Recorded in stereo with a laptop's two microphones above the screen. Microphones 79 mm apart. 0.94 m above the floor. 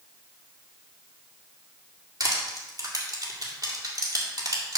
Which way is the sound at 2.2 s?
50° right (ahead or behind).